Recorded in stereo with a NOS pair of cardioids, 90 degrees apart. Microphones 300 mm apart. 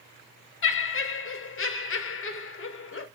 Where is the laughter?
40° left, 1.2 m.